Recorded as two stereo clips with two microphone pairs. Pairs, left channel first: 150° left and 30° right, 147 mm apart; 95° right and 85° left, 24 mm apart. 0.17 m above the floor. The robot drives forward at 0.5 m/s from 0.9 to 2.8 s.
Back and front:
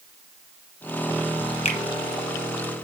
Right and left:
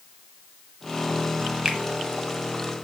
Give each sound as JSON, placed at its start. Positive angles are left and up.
{"t": 1.6, "sound": "a finger snap", "azimuth_deg": 130, "distance_m": 1.2}